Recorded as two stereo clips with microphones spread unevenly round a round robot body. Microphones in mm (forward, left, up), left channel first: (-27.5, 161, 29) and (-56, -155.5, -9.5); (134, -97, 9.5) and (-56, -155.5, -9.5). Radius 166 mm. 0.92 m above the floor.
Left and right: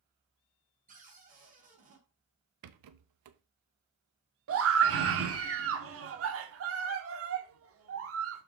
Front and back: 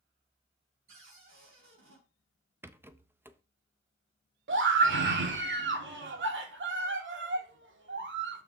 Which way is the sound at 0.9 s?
160° right.